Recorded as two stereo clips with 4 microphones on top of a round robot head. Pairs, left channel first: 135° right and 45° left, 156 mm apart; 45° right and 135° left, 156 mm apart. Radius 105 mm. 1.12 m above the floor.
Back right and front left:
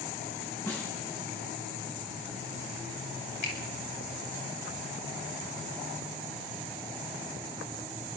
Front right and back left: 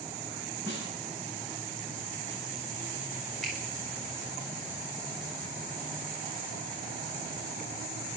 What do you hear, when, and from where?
0.7 s a snare drum: 60° right, 10 m
3.4 s a finger snap: 135° right, 8 m